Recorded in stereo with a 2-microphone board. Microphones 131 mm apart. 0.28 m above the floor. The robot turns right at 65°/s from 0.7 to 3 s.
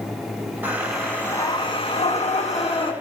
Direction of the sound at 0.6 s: 15° right.